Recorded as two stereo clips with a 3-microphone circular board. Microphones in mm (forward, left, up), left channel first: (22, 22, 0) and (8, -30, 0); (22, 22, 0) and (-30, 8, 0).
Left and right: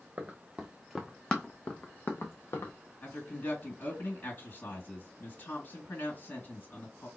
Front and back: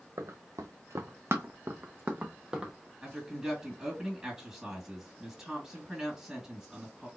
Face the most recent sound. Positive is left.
turn(degrees=115)